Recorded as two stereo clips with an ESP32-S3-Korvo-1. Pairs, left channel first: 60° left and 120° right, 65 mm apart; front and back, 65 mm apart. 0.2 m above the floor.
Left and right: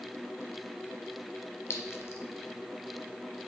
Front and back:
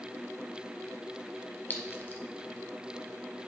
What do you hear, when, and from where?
1.7 s a clink: 45° left, 1.0 m